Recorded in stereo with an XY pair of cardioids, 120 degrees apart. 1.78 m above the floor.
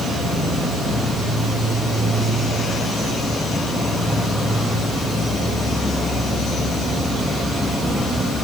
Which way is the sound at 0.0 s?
5° left.